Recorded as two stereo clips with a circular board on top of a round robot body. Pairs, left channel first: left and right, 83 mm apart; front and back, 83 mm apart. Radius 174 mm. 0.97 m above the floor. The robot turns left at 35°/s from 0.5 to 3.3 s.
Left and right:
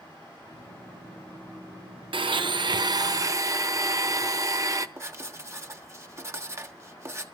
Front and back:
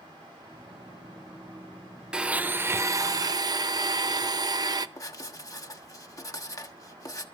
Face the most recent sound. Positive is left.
turn(degrees=-40)